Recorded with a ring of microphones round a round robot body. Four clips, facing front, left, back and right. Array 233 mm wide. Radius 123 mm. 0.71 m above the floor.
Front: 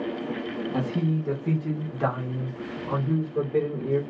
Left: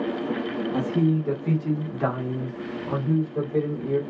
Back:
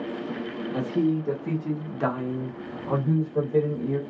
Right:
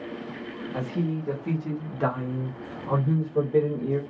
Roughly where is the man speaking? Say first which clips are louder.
Left 6 dB, back 4 dB; ahead left.